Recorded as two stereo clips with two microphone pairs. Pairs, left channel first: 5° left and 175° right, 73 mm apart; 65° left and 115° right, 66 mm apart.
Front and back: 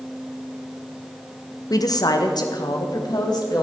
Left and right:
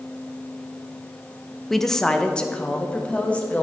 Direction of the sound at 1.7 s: 20° right.